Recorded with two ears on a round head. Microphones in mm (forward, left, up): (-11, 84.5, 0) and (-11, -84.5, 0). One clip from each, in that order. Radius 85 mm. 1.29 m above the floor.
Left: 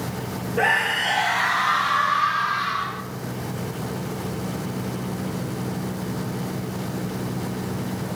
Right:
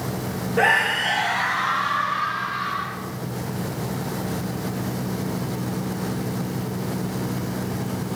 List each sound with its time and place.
0.6 s a scream: 5° right (ahead or behind), 1.2 m; by 3.0 s 40° left (ahead or behind), 4 m